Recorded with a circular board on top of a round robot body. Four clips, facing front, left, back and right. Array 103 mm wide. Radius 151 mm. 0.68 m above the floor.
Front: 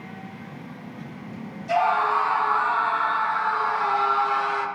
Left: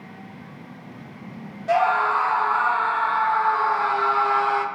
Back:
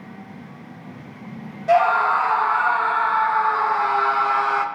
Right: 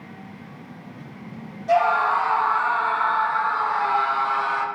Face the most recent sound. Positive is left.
turn(degrees=150)